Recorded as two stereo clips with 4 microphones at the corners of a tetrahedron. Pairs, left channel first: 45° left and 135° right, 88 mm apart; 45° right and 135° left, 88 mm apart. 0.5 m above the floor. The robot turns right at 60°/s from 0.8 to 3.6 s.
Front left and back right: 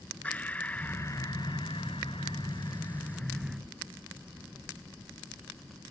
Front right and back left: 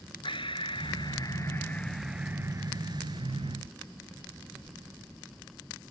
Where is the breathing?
30° right; by 3.6 s 140° left.